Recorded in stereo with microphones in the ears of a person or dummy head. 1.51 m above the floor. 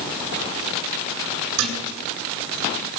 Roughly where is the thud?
Right.